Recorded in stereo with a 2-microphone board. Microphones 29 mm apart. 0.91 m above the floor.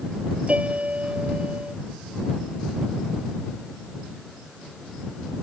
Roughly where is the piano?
Right.